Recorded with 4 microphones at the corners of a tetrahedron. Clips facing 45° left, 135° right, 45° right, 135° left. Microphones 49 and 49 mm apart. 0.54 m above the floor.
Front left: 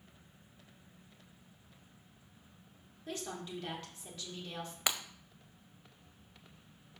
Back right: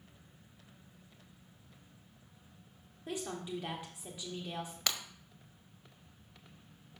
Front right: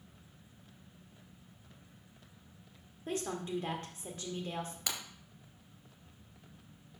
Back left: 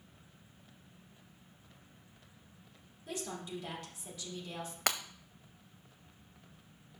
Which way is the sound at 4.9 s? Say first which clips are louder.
Front left 2 dB, back left 11 dB; 115° left.